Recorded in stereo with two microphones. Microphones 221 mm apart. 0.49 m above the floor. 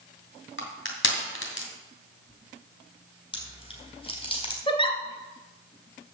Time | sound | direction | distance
0.6 | crushing | 70° left (ahead or behind) | 2.5 m
3.3 | chewing | 25° left (ahead or behind) | 4 m
4.7 | a giggle | 25° left (ahead or behind) | 1.4 m